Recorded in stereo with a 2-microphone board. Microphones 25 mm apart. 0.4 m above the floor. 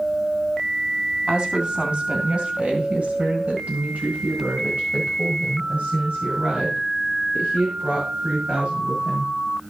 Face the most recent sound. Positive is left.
turn(degrees=-65)  # may be behind; listen again after turning